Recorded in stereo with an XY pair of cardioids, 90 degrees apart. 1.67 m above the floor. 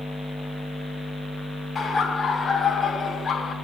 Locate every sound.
1.8 s laughter: 35° left, 5.5 m